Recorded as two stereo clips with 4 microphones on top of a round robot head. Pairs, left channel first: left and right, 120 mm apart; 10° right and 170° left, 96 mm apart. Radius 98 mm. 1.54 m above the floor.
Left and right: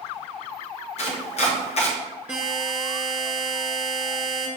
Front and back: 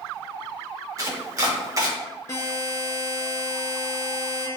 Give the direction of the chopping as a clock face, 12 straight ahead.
8 o'clock.